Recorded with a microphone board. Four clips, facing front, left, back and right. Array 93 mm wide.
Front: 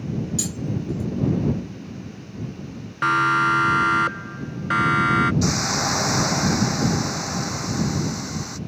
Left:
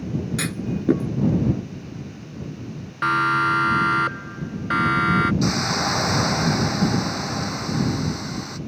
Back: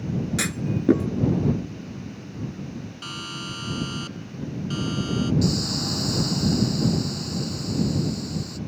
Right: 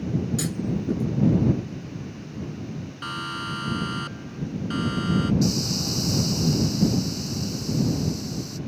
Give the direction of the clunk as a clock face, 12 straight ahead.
7 o'clock.